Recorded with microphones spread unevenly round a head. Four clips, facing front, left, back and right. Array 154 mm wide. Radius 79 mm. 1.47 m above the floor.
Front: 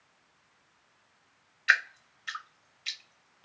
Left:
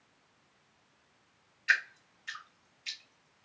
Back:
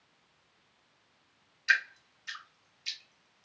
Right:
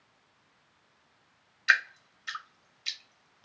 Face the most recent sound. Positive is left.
turn(degrees=-45)